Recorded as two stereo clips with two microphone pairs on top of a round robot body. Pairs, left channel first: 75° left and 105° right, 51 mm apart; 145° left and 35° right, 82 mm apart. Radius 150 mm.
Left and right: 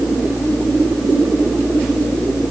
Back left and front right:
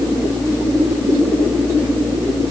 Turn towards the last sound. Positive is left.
No sound to turn to.